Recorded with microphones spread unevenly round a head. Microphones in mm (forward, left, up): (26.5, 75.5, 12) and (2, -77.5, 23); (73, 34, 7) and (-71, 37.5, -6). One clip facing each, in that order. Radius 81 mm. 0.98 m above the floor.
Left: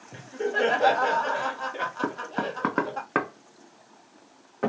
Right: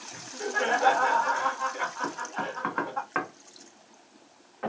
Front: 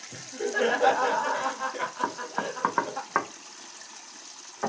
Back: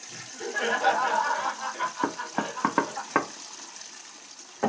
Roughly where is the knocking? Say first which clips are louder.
Left 8 dB, back 2 dB; behind left.